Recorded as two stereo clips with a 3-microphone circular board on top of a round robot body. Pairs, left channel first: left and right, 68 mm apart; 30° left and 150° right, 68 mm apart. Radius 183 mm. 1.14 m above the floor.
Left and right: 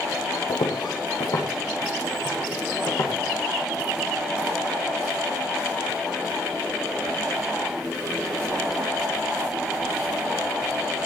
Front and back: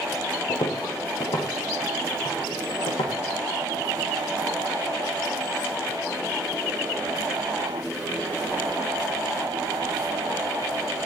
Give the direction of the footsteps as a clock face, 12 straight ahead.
10 o'clock.